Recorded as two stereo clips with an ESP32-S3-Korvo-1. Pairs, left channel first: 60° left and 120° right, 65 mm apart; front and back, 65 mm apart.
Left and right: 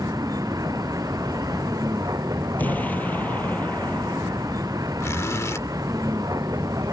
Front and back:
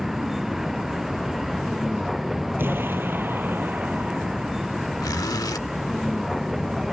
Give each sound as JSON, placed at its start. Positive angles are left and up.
{"t": 0.0, "sound": "a vehicle", "azimuth_deg": -95}
{"t": 2.6, "sound": "an explosion", "azimuth_deg": 125}
{"t": 5.0, "sound": "a zipper", "azimuth_deg": 15}